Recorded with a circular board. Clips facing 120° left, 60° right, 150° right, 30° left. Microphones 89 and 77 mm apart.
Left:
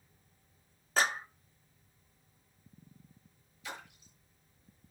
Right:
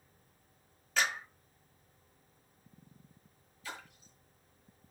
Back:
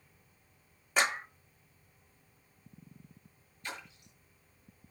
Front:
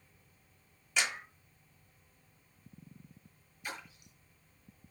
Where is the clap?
165° left, 0.7 m.